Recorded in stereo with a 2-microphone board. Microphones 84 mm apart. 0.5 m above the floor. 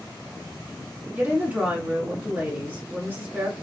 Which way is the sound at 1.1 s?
25° right (ahead or behind).